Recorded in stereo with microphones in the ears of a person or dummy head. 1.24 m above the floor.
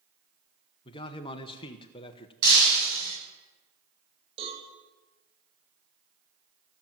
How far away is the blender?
I don't hear a blender.